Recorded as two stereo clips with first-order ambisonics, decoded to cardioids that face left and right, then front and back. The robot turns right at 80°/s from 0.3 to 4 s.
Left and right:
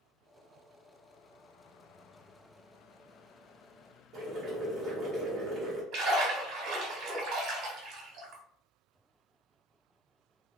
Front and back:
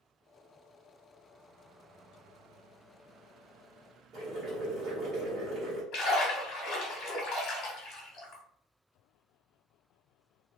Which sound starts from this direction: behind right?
Boiling, at 4.1 s.